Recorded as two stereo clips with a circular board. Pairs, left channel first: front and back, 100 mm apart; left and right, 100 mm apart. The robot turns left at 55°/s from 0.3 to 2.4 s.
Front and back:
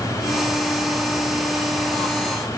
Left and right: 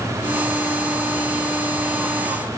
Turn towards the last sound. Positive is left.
No sound to turn to.